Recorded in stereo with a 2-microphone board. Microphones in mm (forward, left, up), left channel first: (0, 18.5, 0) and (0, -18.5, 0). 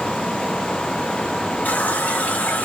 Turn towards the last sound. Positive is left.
turn(degrees=45)  # may be behind; listen again after turning